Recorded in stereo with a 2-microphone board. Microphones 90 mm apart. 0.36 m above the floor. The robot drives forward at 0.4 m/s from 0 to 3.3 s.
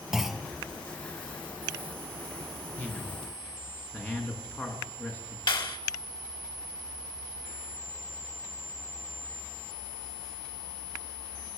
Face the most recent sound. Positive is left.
turn(degrees=60)  # may be behind; listen again after turning